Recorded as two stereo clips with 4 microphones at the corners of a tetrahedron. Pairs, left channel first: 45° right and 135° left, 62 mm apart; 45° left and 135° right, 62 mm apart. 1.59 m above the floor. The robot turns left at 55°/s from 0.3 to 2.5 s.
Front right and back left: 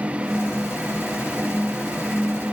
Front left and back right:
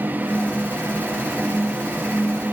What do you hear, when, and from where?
Only background noise.